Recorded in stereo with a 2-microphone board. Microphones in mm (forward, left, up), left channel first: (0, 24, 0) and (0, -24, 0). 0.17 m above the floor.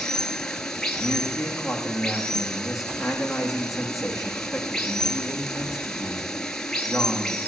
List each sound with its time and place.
0.0 s running water: 15° left (ahead or behind), 1.2 m
1.0 s a man speaking: 5° right (ahead or behind), 9 m